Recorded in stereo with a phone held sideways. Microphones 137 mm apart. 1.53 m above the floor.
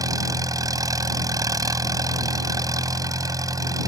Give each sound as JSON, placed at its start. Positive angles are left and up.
{"t": 0.0, "sound": "an engine running", "side_deg": -25}